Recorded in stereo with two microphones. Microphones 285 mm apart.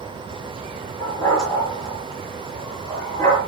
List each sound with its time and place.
1.0 s a dog barking: 10° left (ahead or behind), 6 m